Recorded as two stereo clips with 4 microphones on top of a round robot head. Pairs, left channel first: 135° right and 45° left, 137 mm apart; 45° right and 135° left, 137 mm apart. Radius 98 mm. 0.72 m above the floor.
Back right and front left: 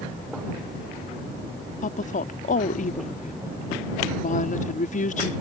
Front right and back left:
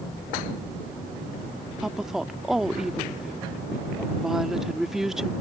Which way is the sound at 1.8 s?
140° right.